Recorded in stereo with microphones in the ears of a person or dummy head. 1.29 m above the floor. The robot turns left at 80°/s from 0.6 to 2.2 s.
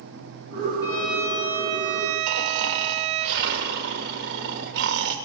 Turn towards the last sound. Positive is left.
turn(degrees=-65)  # may be behind; listen again after turning